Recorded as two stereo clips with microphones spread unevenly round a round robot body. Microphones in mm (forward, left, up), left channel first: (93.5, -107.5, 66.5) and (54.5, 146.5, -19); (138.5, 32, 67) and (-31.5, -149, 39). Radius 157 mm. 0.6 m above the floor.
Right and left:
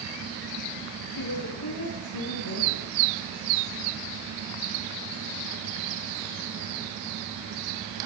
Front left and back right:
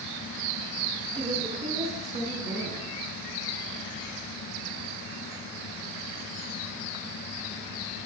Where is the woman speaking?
65° right, 9.5 m; by 2.9 s 75° right, 9 m.